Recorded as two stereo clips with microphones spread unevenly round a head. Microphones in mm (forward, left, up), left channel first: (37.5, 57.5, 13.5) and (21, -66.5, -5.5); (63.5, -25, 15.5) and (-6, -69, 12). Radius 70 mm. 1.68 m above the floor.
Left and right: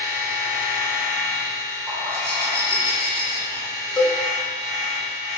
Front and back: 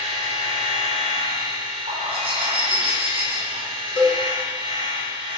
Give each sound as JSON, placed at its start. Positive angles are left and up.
{"t": 0.0, "sound": "a machine running", "azimuth_deg": -170, "distance_m": 0.8}
{"t": 1.9, "sound": "a bird", "azimuth_deg": -175, "distance_m": 0.8}
{"t": 4.0, "sound": "a cowbell", "azimuth_deg": 10, "distance_m": 1.0}